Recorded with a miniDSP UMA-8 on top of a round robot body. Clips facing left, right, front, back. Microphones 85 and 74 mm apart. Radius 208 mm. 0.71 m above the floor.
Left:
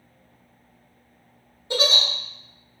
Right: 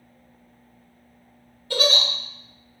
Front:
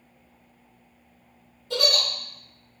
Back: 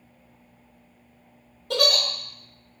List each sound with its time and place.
1.7 s a giggle: 160° left, 1.0 m